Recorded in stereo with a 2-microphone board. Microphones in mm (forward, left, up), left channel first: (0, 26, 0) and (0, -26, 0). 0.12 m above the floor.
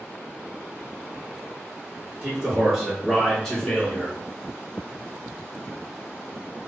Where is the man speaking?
20° right (ahead or behind), 1.5 m; by 4.2 s 30° left (ahead or behind), 1.1 m.